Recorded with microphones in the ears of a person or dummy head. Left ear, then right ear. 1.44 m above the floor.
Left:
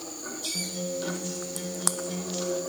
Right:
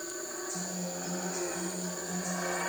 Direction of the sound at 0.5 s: 40° left (ahead or behind).